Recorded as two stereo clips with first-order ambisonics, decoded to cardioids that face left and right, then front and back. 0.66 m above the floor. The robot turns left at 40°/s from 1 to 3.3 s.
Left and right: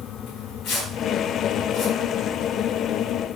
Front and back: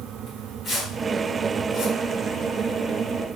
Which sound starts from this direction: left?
Tearing paper, at 0.3 s.